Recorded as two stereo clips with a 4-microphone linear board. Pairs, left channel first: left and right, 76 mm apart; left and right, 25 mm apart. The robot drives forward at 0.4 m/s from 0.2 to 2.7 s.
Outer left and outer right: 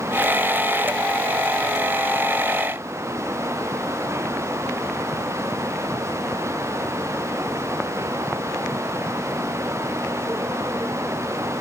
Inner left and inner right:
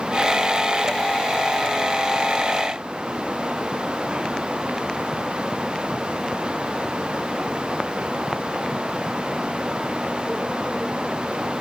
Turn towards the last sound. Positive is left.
No sound to turn to.